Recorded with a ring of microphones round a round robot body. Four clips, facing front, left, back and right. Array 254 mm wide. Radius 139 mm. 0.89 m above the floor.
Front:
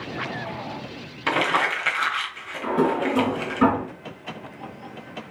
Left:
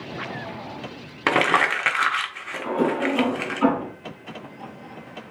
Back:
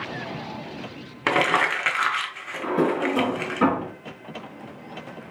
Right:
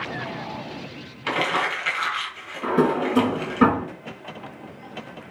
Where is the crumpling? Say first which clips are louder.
Left 4 dB, back 1 dB; 110° left, 1.6 m.